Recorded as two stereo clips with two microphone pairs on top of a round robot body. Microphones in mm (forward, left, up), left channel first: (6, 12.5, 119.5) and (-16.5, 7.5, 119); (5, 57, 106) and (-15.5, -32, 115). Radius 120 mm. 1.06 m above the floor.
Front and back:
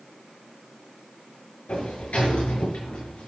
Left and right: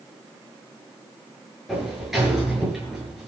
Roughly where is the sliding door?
Ahead.